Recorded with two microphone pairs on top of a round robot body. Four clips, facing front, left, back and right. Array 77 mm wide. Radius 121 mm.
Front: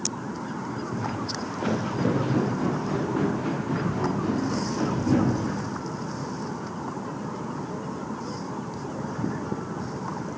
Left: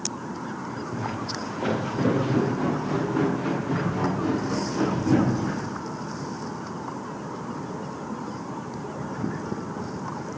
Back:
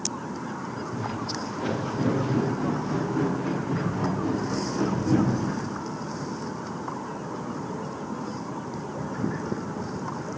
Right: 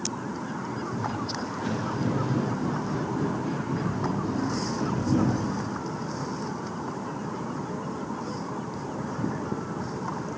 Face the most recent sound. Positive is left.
turn(degrees=60)